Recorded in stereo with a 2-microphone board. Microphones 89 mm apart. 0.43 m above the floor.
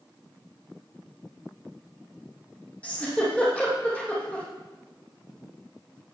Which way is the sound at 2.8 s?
15° left (ahead or behind).